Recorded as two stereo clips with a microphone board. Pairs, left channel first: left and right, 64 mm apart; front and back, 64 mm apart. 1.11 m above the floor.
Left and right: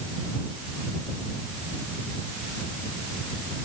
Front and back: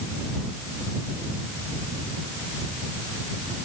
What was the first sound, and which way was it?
Only background noise.